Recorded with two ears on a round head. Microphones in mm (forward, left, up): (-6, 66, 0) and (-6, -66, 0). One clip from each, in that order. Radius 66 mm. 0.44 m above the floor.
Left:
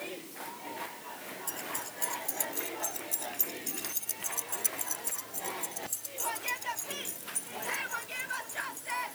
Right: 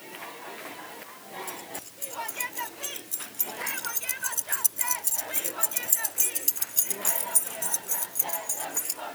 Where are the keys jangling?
15° left (ahead or behind); by 9.0 s 80° right.